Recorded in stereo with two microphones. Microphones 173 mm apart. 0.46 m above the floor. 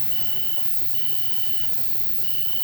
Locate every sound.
0.0 s an insect: 10° left (ahead or behind), 1.4 m